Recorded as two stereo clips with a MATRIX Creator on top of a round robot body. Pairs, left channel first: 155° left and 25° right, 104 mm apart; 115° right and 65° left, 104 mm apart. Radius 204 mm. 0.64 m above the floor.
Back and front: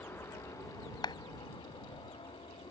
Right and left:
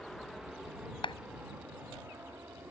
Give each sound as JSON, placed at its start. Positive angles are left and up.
{"t": 0.0, "sound": "an aircraft", "azimuth_deg": 165}
{"t": 1.0, "sound": "a clap", "azimuth_deg": -155}